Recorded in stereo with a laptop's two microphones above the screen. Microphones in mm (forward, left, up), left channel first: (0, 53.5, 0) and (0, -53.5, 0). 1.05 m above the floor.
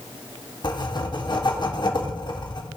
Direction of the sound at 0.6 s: 45° left (ahead or behind).